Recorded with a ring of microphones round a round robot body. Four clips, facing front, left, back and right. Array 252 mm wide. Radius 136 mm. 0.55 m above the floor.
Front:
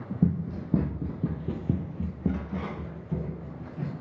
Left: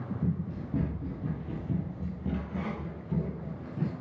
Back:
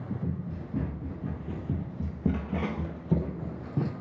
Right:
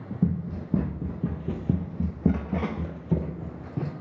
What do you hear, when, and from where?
0.2 s running footsteps: 25° right, 1.7 m; by 3.9 s 150° right, 1.4 m